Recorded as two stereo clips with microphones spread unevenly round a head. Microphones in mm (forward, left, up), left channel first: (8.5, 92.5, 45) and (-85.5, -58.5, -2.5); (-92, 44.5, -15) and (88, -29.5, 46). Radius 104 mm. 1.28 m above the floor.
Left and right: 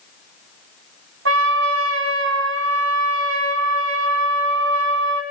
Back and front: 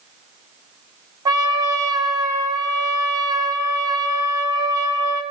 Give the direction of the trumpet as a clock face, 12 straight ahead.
3 o'clock.